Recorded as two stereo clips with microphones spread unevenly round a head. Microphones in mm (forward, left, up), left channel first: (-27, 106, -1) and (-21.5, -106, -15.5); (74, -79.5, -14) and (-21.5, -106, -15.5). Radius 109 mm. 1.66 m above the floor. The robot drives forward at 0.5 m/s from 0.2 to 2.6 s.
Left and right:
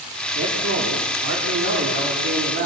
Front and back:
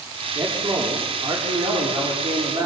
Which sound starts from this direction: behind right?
A man speaking, at 0.3 s.